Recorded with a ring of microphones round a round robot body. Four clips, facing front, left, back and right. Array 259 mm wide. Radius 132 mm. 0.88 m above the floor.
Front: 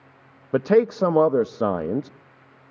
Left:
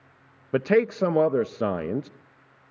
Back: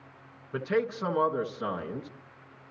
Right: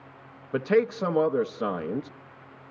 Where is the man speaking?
20° left, 0.5 m.